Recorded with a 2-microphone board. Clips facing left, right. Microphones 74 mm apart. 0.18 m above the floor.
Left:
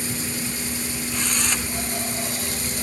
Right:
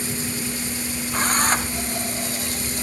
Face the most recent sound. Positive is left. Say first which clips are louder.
# right 8 dB
turn(degrees=-40)  # may be behind; listen again after turning